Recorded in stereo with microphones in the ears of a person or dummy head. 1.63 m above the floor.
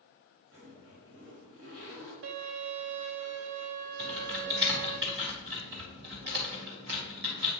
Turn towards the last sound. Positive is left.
turn(degrees=-50)  # may be behind; listen again after turning